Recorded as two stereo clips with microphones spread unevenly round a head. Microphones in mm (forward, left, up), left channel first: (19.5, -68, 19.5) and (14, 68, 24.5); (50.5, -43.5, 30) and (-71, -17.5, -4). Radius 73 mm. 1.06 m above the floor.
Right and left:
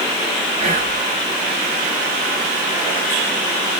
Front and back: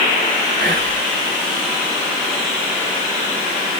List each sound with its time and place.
0.6 s whispering: 145° left, 3 m